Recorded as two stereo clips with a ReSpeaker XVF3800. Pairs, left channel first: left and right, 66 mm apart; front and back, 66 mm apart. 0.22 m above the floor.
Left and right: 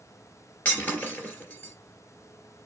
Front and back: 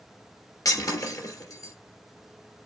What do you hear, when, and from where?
0.7 s breaking glass: 30° left, 2.5 m